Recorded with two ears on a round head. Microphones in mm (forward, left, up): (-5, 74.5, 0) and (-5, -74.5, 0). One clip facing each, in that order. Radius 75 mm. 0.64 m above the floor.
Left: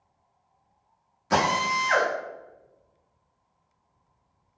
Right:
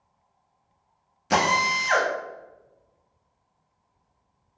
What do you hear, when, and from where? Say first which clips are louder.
1.3 s a drill: right 1 dB; 30° right (ahead or behind), 0.8 m